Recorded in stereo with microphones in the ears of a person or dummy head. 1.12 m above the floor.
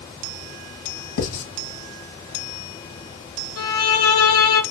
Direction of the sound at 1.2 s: 80° left.